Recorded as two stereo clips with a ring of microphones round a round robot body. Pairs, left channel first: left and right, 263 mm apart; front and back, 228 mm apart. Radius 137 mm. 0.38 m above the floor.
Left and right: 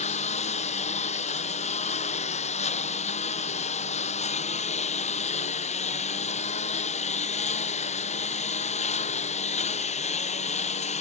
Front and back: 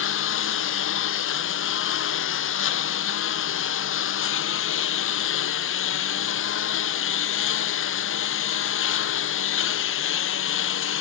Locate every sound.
0.0 s a lawn mower: 25° left